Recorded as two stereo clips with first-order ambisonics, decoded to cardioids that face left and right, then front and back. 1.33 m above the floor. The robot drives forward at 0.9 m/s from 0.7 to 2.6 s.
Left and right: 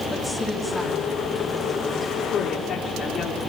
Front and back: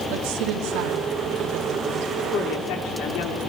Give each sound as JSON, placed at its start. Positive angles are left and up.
{"t": 0.1, "sound": "a woman speaking", "azimuth_deg": 175, "distance_m": 3.0}
{"t": 2.3, "sound": "a woman speaking", "azimuth_deg": 25, "distance_m": 4.0}